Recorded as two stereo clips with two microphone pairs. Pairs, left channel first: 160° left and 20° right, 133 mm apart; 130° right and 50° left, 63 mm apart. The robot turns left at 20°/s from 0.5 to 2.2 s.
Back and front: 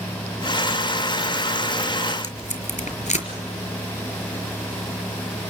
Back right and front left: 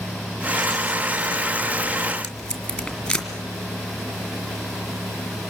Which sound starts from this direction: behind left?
Tape being pulled, at 2.2 s.